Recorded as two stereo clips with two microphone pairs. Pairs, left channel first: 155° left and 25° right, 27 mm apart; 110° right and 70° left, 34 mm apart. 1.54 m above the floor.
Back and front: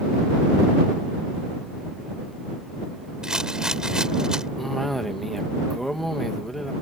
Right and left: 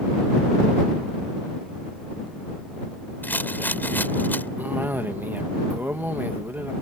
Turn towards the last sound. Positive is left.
turn(degrees=75)